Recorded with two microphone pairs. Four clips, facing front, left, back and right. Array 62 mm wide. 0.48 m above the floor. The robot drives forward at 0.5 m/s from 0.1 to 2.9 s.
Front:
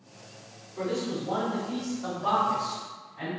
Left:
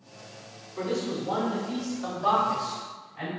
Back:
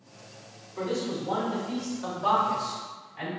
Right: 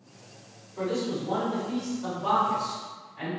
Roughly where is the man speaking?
Behind left.